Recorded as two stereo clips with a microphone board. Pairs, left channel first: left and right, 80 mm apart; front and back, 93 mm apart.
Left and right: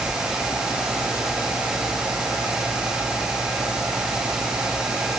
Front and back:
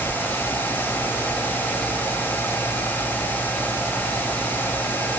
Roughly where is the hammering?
No hammering in this recording.